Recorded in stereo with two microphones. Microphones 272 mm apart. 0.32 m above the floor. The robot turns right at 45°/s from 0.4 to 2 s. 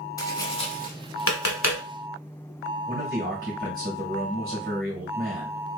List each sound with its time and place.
0.2 s tapping: 15° left (ahead or behind), 1.0 m; by 1.8 s 75° left (ahead or behind), 1.0 m
2.9 s a man speaking: 35° right (ahead or behind), 1.5 m